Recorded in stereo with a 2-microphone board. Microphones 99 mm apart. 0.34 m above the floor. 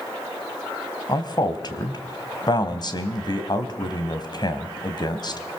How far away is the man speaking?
About 2 m.